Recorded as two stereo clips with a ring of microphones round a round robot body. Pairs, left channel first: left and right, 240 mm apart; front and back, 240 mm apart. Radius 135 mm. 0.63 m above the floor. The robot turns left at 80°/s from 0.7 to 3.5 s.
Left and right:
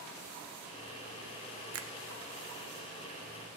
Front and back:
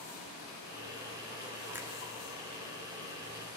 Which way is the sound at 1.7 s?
100° right.